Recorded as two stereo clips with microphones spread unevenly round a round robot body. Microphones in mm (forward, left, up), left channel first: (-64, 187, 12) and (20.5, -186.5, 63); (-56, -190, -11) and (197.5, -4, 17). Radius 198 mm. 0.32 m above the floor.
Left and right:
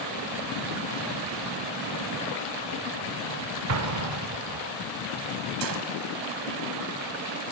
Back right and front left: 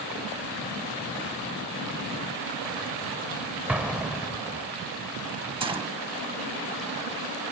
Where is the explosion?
55° right, 1.1 m.